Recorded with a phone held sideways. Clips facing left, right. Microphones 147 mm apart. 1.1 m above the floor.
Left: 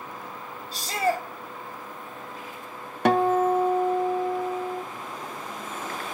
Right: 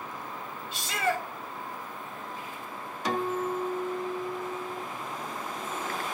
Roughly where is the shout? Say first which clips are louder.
Left 4 dB; left.